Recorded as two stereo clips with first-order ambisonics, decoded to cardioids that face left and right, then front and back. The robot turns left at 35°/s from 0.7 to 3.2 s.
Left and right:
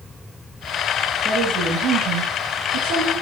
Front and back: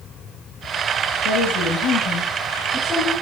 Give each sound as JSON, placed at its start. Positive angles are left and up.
{"t": 1.2, "sound": "a woman speaking", "azimuth_deg": -25, "distance_m": 9.0}